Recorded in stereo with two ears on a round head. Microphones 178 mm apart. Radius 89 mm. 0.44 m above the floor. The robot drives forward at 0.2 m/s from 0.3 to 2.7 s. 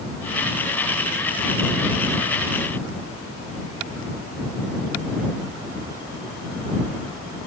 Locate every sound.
Only background noise.